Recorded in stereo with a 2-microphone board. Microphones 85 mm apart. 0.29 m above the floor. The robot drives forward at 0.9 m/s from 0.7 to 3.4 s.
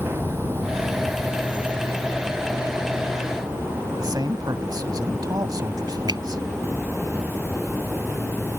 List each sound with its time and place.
0.0 s an insect: 25° left (ahead or behind); by 8.6 s 10° left (ahead or behind)
4.0 s a man speaking: 50° right (ahead or behind)
6.1 s a finger snap: 55° right (ahead or behind)